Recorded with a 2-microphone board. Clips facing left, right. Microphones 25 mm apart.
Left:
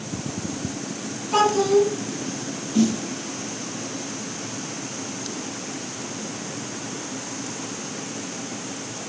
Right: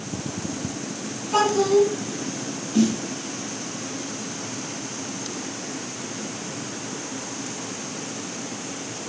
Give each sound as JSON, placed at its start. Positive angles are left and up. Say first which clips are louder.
{"t": 1.3, "sound": "a child speaking", "louder": "left 1 dB", "side_deg": 15, "distance_m": 1.8}
{"t": 2.7, "sound": "a snare drum", "louder": "even", "side_deg": -5, "distance_m": 1.8}